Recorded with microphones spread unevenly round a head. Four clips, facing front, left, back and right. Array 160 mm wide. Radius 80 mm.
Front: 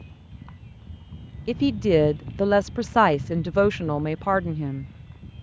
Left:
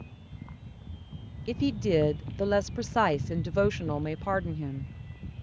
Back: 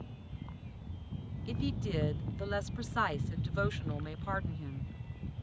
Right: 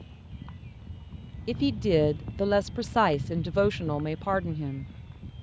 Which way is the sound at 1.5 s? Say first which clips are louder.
Right 2 dB, front 16 dB; 5° right.